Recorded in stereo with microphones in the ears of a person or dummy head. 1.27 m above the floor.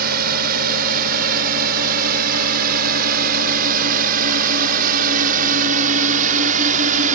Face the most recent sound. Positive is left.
turn(degrees=-45)  # may be behind; listen again after turning